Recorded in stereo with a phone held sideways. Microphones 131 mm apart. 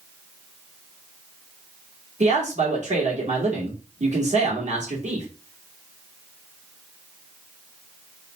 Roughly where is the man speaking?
Right.